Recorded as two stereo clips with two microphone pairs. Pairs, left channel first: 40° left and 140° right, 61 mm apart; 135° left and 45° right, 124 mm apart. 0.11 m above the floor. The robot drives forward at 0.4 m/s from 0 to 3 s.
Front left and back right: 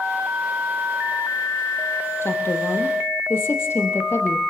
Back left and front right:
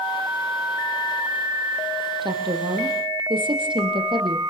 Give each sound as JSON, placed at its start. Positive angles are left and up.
{"t": 2.2, "sound": "a woman speaking", "azimuth_deg": 0, "distance_m": 4.5}